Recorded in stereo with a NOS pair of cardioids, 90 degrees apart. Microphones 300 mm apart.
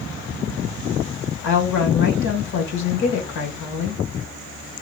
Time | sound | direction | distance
1.4 | a woman speaking | 70° left | 1.6 m